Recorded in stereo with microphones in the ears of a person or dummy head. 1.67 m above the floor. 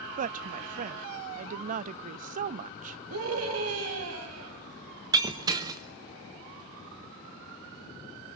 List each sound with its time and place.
0.2 s a woman speaking: 40° right (ahead or behind), 0.5 m
3.1 s a scream: 85° right, 4 m
5.1 s breaking glass: 20° right (ahead or behind), 1.4 m